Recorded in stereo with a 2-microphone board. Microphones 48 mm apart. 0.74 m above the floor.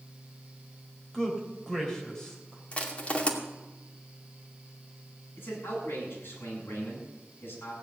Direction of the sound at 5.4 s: 45° left (ahead or behind).